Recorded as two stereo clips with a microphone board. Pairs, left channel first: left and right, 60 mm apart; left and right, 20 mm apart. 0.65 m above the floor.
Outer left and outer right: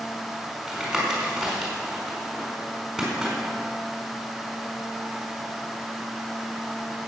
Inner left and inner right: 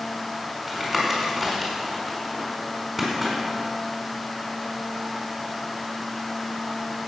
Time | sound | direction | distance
0.7 | tapping | centre (ahead or behind) | 4.5 m